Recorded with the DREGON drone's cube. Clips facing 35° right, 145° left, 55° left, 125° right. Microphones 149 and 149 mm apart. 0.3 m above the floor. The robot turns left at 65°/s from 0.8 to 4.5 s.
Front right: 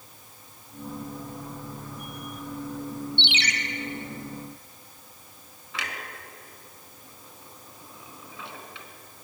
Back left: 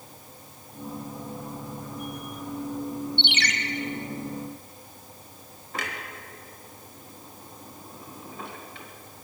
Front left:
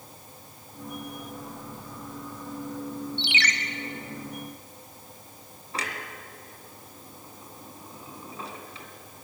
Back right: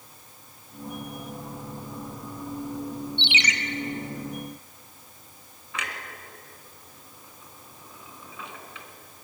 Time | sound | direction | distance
3.2 | a ringtone | straight behind | 1.3 m
5.7 | a clunk | 110° left | 2.5 m